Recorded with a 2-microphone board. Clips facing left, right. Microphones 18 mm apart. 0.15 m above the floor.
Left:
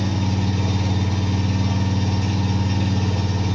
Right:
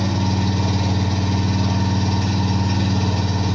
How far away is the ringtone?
I don't hear a ringtone.